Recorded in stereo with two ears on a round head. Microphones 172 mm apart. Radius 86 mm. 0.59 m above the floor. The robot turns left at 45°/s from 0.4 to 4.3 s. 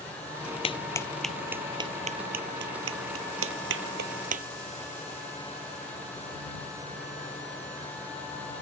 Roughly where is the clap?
Left.